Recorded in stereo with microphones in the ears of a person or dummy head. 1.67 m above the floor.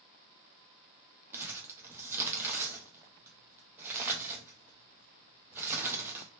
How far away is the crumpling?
About 0.6 m.